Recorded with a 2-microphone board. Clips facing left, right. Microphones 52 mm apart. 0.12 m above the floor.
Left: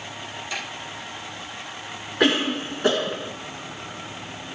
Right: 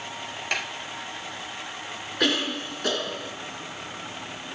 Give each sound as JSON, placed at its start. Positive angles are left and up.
{"t": 0.5, "sound": "a snare drum", "side_deg": -55, "distance_m": 3.0}
{"t": 2.2, "sound": "a cough", "side_deg": 20, "distance_m": 1.3}